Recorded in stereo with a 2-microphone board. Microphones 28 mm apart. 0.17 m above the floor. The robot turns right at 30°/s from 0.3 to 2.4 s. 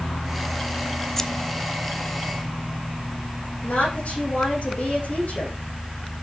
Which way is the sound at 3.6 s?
65° left (ahead or behind).